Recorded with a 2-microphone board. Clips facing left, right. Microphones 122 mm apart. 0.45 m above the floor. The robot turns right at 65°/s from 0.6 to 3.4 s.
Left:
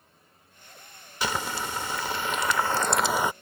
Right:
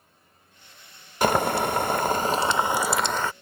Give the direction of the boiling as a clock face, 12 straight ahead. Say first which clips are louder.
Right 9 dB; 4 o'clock.